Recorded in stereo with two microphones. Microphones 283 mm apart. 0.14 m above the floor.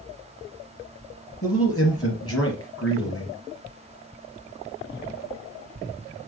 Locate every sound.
1.4 s a man speaking: 55° left (ahead or behind), 3 m